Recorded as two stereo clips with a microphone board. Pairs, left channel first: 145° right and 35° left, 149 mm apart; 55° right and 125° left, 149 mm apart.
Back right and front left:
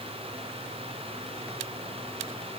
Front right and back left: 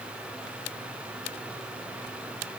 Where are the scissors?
No scissors in this recording.